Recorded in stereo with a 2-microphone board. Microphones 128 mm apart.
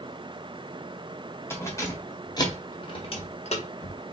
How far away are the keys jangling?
About 1.7 m.